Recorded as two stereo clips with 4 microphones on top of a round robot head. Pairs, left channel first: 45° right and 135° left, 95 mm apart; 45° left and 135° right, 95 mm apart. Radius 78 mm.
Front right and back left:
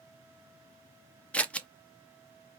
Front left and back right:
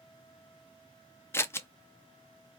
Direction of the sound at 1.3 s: 20° left.